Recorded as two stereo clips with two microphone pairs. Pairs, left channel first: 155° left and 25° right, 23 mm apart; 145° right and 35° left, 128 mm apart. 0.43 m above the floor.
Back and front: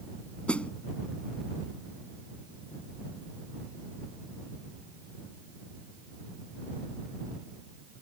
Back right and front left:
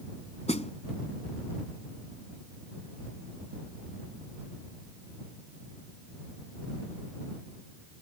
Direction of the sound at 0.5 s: 175° right.